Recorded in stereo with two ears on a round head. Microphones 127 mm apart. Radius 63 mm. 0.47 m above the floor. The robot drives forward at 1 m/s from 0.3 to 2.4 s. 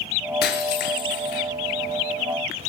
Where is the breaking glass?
80° left, 5.5 m; by 1.4 s 70° left (ahead or behind), 5.5 m.